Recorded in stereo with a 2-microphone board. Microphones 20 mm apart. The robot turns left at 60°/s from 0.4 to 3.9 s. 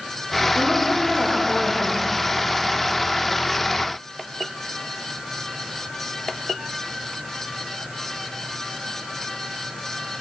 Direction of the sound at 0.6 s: 75° left.